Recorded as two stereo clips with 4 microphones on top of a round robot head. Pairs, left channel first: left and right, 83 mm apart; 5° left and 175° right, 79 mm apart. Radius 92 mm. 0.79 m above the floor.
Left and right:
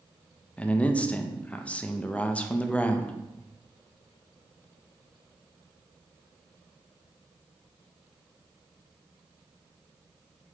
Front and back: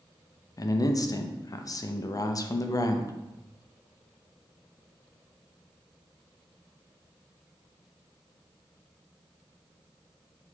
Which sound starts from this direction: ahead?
A man speaking, at 0.6 s.